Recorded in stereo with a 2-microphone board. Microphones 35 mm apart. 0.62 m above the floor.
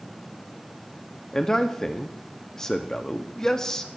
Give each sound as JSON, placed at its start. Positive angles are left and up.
{"t": 1.3, "sound": "a man speaking", "side_deg": 15, "distance_m": 0.6}